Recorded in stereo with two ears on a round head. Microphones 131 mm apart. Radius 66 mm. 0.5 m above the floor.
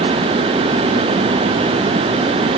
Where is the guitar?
No guitar in this recording.